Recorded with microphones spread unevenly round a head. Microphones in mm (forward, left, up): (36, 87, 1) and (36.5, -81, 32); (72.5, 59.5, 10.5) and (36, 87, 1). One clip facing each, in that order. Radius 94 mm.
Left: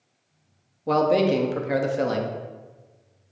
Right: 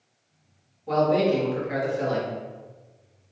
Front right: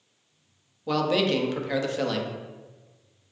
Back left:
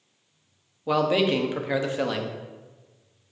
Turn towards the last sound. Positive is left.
turn(degrees=70)